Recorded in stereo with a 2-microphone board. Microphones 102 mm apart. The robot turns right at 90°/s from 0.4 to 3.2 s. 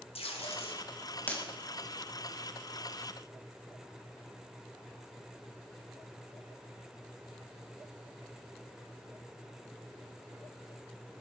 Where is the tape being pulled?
80° left, 2 m; by 1.4 s 5° left (ahead or behind), 2 m.